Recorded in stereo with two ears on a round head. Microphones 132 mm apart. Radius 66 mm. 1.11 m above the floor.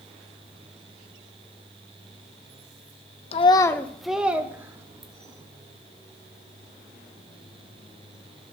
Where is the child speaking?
45° left (ahead or behind), 0.6 m; by 5.4 s 25° right (ahead or behind), 2.0 m.